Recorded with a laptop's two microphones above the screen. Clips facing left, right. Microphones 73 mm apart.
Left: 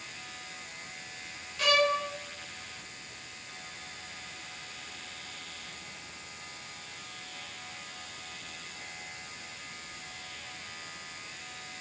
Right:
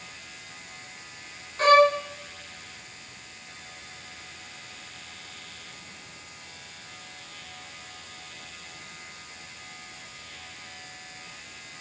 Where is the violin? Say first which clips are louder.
Right 9 dB; 40° right (ahead or behind), 3.5 m.